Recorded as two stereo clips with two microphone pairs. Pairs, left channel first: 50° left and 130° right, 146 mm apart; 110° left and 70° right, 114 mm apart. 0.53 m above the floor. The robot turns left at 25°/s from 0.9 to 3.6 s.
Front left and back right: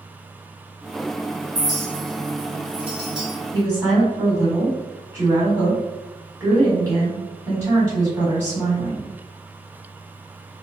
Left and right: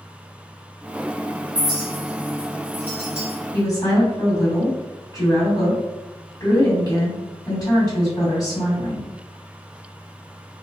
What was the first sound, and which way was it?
A clink, 150° right.